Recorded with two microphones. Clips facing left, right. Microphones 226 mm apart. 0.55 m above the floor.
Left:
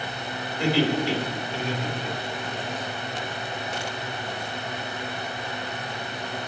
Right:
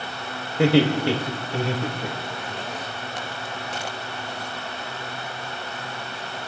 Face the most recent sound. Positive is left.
turn(degrees=-70)  # may be behind; listen again after turning